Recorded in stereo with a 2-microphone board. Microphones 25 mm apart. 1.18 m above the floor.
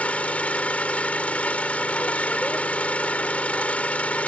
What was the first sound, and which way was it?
An engine running, 85° left.